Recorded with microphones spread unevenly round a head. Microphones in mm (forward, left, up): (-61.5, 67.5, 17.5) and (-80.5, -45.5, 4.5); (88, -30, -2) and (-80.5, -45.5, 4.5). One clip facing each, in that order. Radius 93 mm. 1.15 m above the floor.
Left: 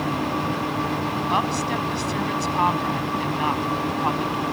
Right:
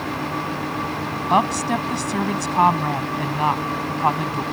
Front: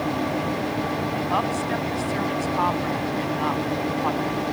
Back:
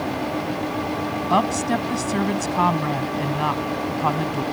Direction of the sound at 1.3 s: 140° right.